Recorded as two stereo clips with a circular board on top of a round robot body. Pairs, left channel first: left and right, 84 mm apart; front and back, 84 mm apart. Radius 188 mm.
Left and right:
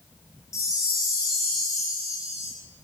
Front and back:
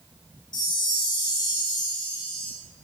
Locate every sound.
0.5 s a chime: 35° left, 0.6 m